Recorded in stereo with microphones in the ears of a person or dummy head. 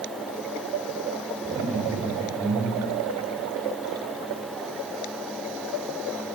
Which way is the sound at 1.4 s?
40° right (ahead or behind).